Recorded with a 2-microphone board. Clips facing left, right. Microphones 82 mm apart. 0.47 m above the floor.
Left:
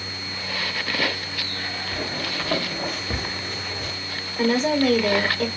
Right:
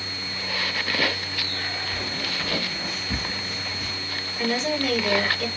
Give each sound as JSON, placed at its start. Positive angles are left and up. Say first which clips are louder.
{"t": 1.9, "sound": "footsteps", "louder": "left 2 dB", "side_deg": 25, "distance_m": 2.0}
{"t": 4.4, "sound": "a woman speaking", "louder": "left 6 dB", "side_deg": 45, "distance_m": 3.0}